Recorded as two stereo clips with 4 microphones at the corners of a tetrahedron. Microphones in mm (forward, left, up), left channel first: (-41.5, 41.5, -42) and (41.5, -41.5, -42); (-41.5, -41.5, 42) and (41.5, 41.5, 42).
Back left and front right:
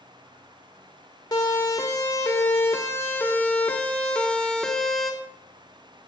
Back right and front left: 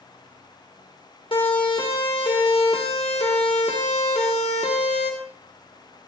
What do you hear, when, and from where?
1.3 s a siren: 175° right, 3.5 m; by 5.1 s 135° right, 2.5 m